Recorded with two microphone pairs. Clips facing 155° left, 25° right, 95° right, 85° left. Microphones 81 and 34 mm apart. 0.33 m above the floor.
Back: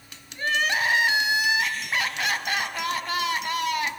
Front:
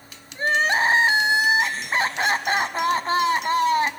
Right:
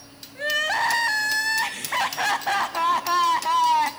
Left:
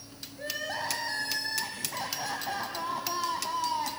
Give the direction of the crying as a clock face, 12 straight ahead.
3 o'clock.